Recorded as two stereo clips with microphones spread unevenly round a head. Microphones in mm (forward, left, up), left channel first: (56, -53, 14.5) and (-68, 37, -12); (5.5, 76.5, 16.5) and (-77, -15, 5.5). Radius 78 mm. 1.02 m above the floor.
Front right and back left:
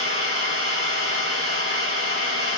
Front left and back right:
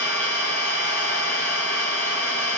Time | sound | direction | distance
0.0 | an engine running | 120° left | 1.7 m